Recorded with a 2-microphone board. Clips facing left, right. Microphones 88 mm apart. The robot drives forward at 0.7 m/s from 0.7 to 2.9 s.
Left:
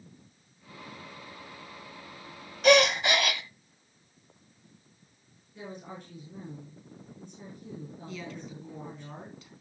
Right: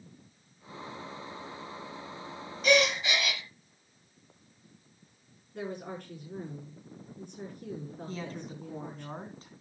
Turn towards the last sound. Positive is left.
turn(degrees=-35)  # may be behind; listen again after turning